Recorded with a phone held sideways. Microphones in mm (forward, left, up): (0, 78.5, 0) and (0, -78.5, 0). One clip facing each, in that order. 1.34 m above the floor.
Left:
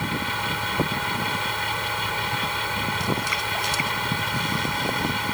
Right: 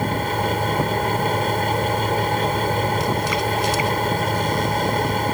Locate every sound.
0.0 s a fan: 45° right (ahead or behind)